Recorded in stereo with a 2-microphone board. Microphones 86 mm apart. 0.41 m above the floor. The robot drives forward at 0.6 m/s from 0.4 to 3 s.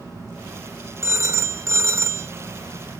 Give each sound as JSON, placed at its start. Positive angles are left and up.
{"t": 1.0, "sound": "a phone ringing", "side_deg": -30, "distance_m": 1.0}